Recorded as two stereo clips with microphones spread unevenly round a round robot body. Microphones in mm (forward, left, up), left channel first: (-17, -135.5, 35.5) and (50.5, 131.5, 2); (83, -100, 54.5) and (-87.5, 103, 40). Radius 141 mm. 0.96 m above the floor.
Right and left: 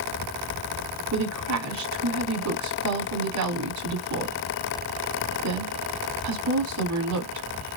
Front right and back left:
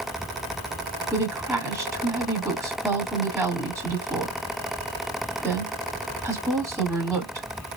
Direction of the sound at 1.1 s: 45° left.